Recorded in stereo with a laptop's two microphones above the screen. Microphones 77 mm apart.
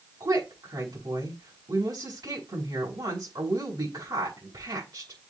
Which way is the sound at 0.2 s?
65° right (ahead or behind).